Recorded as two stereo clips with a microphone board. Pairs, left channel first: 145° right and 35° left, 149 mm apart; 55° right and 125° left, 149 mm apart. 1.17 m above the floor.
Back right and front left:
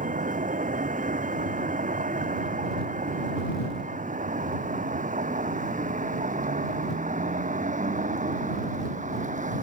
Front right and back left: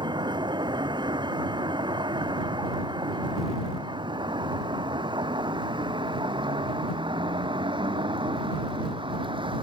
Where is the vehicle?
65° left; by 9.6 s 70° left.